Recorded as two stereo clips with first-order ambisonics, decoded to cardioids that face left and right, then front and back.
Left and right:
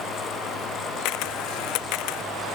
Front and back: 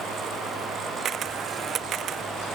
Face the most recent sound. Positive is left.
turn(degrees=120)